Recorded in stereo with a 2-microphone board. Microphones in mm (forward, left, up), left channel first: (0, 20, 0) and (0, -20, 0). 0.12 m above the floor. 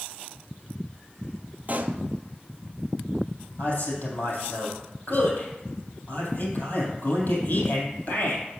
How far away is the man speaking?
About 3 m.